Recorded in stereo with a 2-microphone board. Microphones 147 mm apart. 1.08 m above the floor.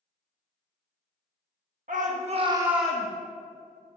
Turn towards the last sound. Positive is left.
turn(degrees=20)  # may be behind; listen again after turning